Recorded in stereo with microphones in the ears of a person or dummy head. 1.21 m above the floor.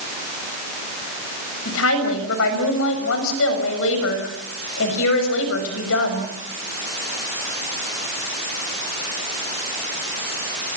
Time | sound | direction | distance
1.6 | a woman speaking | 80° left | 6.5 m